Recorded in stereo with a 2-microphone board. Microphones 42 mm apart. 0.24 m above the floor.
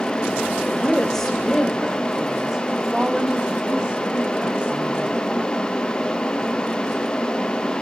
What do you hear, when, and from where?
0.7 s a woman speaking: 20° left (ahead or behind), 1.5 m; by 5.2 s 35° right (ahead or behind), 3 m